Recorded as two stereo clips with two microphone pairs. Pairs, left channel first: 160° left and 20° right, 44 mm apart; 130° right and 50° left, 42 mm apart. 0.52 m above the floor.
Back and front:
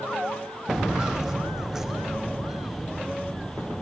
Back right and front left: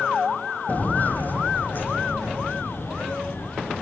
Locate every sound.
0.7 s footsteps: 90° right, 0.8 m; by 3.8 s 95° right, 3 m